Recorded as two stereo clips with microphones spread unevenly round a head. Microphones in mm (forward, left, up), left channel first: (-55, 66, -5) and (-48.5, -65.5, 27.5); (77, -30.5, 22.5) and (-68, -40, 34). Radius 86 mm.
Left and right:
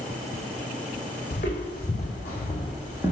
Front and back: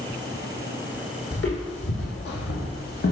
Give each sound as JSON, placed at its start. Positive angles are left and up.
{"t": 1.3, "sound": "footsteps", "azimuth_deg": 35, "distance_m": 3.0}